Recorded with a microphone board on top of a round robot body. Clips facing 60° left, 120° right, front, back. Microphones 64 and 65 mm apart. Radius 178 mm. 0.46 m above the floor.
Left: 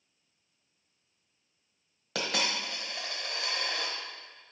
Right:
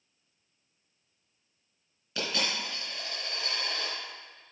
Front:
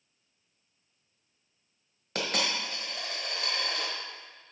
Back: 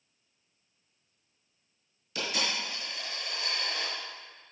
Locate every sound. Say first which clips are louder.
2.1 s a dropped coin: left 1 dB, front 2 dB; 40° left, 1.2 m